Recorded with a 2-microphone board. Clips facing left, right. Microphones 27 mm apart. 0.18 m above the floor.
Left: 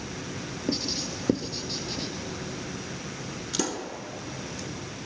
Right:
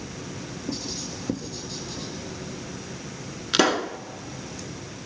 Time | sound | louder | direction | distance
0.7 | writing | left 4 dB | 45° left (ahead or behind) | 2.0 m
3.5 | a pop | right 10 dB | 60° right (ahead or behind) | 0.6 m